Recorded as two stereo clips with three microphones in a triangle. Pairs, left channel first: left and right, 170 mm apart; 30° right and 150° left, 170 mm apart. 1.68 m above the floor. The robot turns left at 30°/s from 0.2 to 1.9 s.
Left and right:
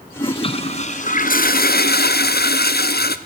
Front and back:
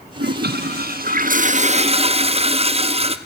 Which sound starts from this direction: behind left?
A toilet flushing, at 0.2 s.